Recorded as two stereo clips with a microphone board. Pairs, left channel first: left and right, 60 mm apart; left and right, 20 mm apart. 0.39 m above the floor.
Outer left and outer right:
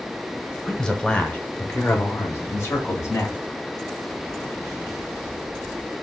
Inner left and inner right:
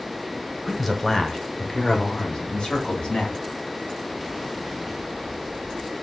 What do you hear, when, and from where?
0.7 s a man speaking: 5° left (ahead or behind), 1.0 m; by 3.4 s 50° left (ahead or behind), 1.7 m